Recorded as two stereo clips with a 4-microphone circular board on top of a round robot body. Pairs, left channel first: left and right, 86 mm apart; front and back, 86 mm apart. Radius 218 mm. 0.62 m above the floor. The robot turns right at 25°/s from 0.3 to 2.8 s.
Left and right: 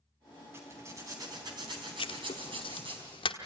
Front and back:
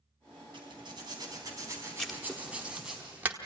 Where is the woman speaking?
I don't hear a woman speaking.